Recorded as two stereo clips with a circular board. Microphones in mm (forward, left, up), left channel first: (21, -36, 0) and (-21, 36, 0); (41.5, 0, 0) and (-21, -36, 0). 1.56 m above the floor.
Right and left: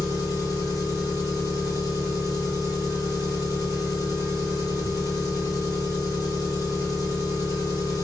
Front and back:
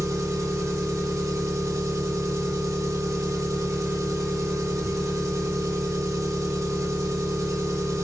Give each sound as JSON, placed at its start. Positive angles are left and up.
{"t": 0.0, "sound": "an engine running", "azimuth_deg": -110, "distance_m": 5.0}